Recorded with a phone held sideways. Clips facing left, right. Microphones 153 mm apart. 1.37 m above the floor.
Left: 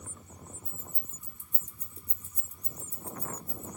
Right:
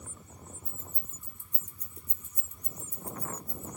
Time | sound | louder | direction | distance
0.7 | keys jangling | even | 10° left (ahead or behind) | 1.4 m